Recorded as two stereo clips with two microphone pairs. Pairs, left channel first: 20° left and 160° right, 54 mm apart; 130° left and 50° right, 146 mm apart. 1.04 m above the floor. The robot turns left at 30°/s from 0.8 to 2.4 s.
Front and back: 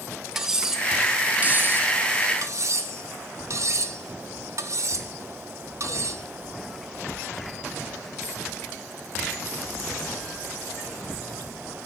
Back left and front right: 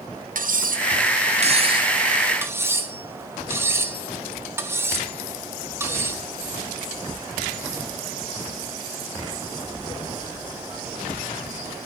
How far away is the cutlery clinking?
About 0.6 m.